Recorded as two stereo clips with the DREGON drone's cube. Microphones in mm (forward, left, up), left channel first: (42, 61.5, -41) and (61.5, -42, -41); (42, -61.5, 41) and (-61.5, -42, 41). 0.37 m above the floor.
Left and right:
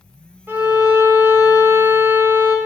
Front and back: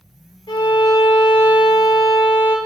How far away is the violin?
About 0.9 m.